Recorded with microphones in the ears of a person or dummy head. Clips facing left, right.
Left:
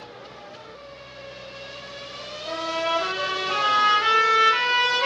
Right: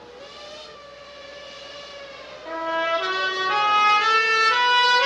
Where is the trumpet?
65° right (ahead or behind), 1.2 m.